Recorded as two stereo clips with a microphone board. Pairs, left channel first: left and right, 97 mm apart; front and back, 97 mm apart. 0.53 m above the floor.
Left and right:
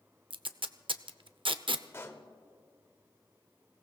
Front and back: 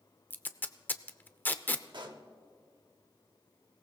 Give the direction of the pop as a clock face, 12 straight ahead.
7 o'clock.